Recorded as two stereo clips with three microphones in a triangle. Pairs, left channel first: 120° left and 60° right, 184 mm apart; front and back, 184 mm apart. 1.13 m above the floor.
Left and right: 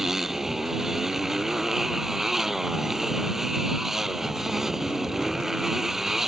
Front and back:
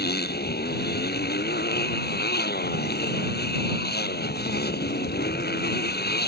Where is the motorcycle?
30° left.